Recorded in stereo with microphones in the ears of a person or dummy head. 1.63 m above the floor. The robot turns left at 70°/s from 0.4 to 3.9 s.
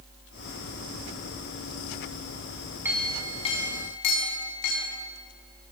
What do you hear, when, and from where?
2.9 s a clink: 170° right, 7 m; by 5.0 s 115° left, 7 m